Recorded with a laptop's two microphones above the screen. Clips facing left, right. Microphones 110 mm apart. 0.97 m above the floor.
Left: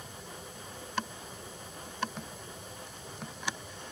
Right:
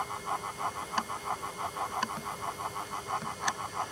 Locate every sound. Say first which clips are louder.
0.0 s a fan: right 12 dB; 85° right